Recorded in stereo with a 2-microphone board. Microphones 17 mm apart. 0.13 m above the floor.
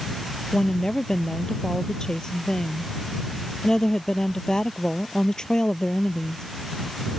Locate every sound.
0.5 s a woman speaking: 40° left (ahead or behind)